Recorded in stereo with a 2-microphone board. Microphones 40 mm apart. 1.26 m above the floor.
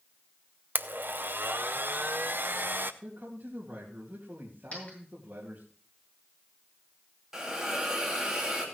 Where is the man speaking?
60° right (ahead or behind), 2.5 m.